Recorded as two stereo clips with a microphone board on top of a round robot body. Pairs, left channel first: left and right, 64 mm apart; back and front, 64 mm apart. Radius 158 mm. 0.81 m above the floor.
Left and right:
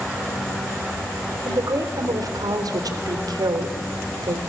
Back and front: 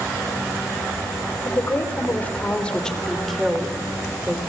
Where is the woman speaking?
125° right, 3.5 m; by 4.4 s 75° right, 3.5 m.